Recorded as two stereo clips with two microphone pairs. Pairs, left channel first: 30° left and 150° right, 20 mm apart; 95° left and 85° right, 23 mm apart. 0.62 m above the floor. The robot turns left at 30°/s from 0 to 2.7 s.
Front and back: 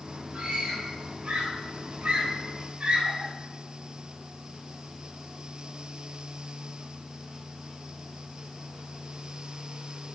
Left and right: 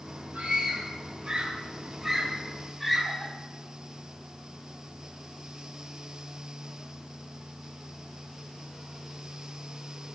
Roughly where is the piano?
I don't hear a piano.